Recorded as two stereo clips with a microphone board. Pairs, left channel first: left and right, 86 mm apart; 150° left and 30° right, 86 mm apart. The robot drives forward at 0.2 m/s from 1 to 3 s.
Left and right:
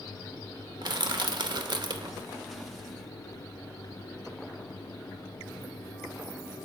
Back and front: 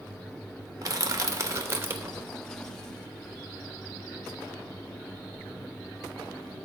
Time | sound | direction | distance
0.8 | crushing | 70° right | 0.7 m